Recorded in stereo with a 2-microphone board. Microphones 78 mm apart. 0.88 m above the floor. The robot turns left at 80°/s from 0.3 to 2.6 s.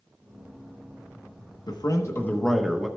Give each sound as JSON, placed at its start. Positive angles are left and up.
{"t": 1.7, "sound": "a man speaking", "azimuth_deg": 75, "distance_m": 0.9}